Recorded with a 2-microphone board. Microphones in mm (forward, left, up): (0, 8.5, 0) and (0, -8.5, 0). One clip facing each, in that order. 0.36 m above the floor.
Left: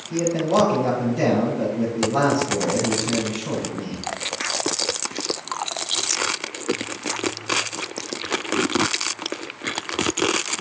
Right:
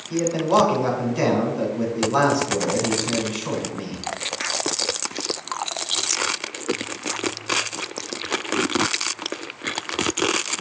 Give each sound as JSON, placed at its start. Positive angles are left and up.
{"t": 0.1, "sound": "a man speaking", "side_deg": -60, "distance_m": 4.0}